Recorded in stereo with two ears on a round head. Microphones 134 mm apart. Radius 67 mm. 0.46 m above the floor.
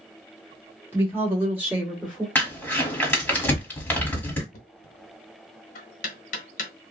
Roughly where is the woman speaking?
Centre.